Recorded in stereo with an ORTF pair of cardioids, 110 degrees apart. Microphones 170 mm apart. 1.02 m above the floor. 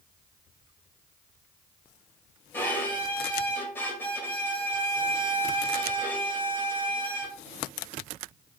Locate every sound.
2.5 s a violin: 10° left, 1.9 m